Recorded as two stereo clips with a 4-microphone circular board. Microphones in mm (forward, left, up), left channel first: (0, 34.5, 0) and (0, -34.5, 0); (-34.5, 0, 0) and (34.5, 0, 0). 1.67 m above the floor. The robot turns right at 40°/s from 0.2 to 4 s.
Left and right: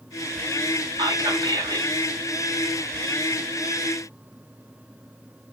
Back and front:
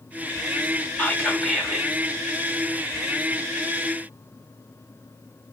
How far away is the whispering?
About 1.7 m.